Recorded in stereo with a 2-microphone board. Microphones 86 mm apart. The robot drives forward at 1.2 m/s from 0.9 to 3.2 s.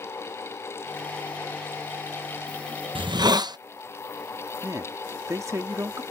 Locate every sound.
3.0 s a hiss: 80° right; by 3.6 s 55° right (ahead or behind)
4.6 s a man speaking: 40° right (ahead or behind)